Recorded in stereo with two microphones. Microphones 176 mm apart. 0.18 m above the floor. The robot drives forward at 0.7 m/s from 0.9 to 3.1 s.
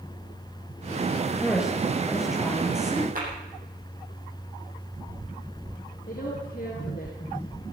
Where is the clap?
55° right (ahead or behind), 6 m.